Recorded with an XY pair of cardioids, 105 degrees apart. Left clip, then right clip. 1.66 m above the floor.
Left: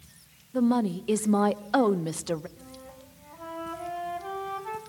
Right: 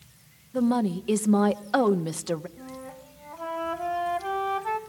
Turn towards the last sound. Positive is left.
turn(degrees=-35)